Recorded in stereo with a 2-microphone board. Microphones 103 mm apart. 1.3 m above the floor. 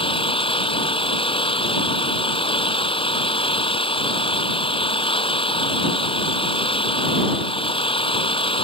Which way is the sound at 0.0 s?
55° left (ahead or behind).